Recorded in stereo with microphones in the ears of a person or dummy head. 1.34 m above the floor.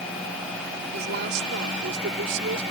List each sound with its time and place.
0.9 s a woman speaking: 55° right (ahead or behind); by 2.6 s 65° right (ahead or behind)